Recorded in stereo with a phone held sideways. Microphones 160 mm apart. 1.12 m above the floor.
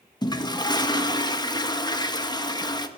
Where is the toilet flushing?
25° left (ahead or behind), 0.9 m.